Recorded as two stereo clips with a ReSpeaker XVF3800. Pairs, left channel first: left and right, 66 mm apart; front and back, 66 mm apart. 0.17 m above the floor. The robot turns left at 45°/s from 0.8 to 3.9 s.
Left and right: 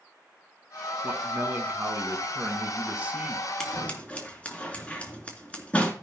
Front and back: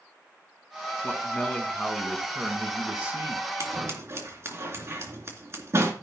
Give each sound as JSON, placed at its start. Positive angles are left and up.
{"t": 1.0, "sound": "a man speaking", "azimuth_deg": -45, "distance_m": 1.7}
{"t": 3.6, "sound": "scissors", "azimuth_deg": 165, "distance_m": 2.5}